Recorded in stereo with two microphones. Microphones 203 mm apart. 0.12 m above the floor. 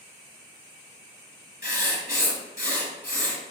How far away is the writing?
About 1.0 m.